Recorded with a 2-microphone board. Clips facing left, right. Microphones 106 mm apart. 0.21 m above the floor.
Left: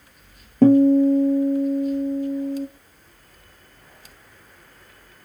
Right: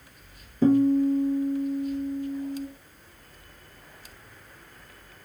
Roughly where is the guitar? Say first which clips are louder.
Left 6 dB; left.